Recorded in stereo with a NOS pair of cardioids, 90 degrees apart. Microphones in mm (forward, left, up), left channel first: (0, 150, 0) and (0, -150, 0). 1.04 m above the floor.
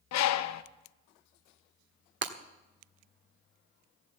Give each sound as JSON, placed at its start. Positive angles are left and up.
{"t": 0.1, "sound": "a bird", "azimuth_deg": 65, "distance_m": 0.7}
{"t": 2.2, "sound": "breaking glass", "azimuth_deg": -40, "distance_m": 1.4}